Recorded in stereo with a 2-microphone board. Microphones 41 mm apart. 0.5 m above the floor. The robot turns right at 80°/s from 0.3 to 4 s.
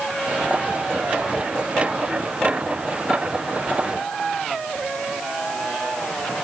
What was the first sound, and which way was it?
Only background noise.